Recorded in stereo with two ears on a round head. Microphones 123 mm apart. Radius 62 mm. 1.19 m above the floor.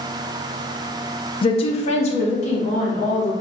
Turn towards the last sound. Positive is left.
turn(degrees=55)  # may be behind; listen again after turning